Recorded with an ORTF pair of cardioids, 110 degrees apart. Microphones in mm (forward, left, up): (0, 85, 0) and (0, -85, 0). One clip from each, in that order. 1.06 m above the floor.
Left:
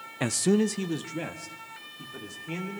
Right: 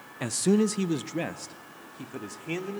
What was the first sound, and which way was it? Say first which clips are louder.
A man speaking: even; 25° left.